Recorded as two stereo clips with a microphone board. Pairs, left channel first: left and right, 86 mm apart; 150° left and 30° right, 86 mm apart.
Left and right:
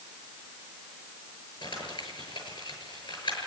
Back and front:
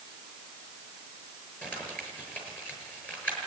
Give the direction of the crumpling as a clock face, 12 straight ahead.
9 o'clock.